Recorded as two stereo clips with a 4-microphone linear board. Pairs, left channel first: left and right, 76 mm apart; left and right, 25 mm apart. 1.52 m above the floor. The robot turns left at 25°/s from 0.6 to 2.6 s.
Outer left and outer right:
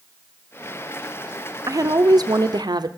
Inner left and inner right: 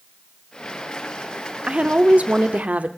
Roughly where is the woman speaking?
Right.